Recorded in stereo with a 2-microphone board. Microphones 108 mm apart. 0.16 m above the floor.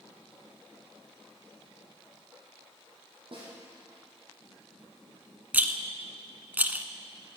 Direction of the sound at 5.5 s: 15° right (ahead or behind).